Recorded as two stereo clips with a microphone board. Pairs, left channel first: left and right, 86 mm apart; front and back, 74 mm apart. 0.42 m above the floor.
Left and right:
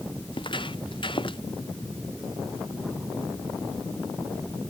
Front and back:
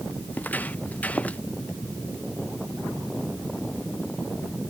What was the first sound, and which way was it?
Footsteps, 70° left.